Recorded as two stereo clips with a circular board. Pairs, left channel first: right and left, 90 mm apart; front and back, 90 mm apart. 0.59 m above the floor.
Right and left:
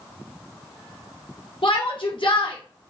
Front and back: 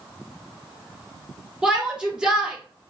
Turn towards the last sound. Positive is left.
turn(degrees=-100)